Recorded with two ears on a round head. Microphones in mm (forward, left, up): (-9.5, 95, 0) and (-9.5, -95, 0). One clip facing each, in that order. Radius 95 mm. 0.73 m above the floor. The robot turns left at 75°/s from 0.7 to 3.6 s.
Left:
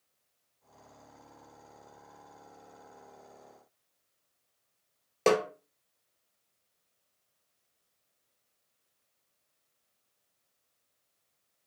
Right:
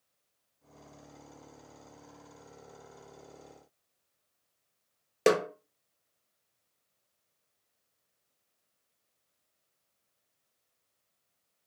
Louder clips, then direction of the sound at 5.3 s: Right 1 dB; 15° right (ahead or behind).